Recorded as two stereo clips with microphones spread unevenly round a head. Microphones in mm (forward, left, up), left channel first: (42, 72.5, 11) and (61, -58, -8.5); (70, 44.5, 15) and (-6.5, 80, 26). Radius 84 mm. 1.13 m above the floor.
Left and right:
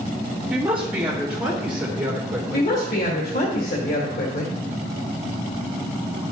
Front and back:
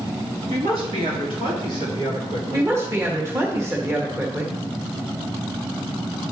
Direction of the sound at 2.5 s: 95° left.